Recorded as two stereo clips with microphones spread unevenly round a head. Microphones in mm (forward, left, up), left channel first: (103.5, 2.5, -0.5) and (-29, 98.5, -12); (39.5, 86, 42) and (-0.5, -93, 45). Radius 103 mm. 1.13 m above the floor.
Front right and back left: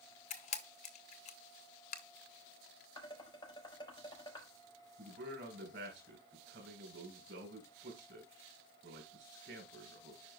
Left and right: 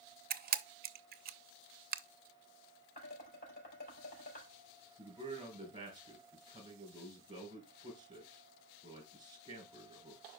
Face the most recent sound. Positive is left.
turn(degrees=-170)